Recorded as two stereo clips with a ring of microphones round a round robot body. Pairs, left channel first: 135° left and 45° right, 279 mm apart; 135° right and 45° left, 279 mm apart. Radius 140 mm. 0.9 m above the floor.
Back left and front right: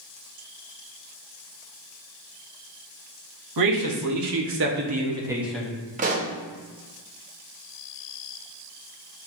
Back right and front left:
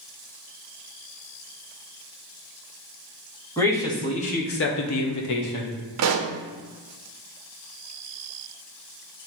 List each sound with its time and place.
3.6 s a man speaking: 50° right, 1.1 m; by 5.8 s 145° right, 0.9 m
6.0 s a pop: 15° left, 0.5 m